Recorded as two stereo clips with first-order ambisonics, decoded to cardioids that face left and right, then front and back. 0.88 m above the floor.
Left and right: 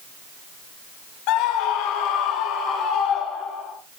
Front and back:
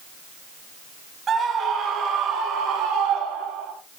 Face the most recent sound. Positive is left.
turn(degrees=145)